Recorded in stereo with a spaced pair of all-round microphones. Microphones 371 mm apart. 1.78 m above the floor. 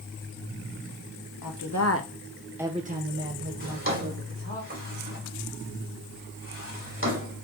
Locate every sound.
1.4 s a woman speaking: 60° left (ahead or behind), 1.5 m; by 4.6 s 55° right (ahead or behind), 3 m
3.6 s a drawer: 35° right (ahead or behind), 2.5 m